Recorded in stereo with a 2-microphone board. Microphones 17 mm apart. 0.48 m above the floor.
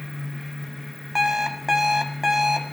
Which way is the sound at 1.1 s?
20° right (ahead or behind).